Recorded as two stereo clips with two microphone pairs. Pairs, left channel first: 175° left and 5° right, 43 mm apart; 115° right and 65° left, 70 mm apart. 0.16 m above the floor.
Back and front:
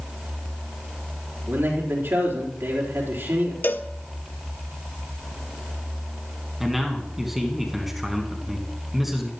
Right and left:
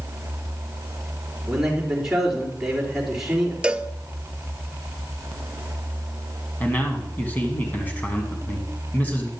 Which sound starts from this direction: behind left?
A cowbell, at 3.6 s.